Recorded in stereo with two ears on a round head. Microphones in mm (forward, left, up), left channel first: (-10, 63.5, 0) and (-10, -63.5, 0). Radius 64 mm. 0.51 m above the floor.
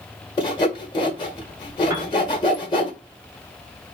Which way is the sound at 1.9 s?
20° right (ahead or behind).